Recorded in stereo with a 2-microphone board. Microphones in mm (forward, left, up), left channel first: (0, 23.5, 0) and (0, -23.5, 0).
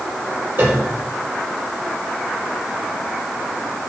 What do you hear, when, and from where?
0.6 s a piano: 55° right (ahead or behind), 5 m